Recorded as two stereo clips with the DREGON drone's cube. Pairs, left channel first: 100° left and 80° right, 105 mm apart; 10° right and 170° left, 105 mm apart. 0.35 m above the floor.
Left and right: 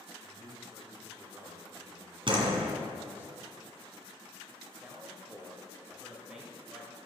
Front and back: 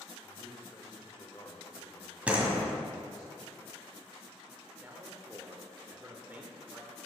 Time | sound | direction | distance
0.2 | a man speaking | 20° right | 1.0 m
2.3 | a door slam | 115° right | 1.8 m
4.8 | a man speaking | 155° right | 1.0 m